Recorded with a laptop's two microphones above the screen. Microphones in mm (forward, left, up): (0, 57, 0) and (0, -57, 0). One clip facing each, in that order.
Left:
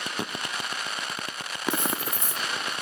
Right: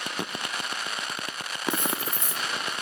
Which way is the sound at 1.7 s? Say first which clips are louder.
Left 1 dB; 35° left (ahead or behind).